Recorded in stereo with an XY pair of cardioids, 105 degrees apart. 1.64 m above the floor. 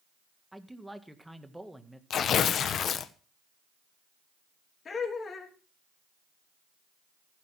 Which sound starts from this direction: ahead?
A man speaking, at 0.5 s.